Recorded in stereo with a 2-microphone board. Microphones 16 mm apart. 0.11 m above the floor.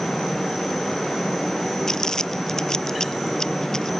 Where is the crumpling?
35° left (ahead or behind).